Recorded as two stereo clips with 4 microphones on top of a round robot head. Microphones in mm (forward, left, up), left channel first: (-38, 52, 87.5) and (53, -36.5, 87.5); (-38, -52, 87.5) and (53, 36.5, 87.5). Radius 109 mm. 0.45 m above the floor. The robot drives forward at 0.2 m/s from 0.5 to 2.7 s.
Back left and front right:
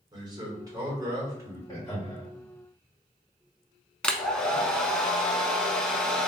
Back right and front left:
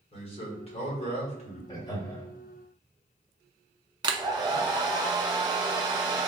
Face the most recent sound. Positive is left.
turn(degrees=60)